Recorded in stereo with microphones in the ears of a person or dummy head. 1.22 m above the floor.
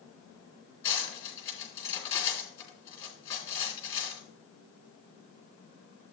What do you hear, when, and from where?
0.8 s cutlery clinking: 20° left (ahead or behind), 2.5 m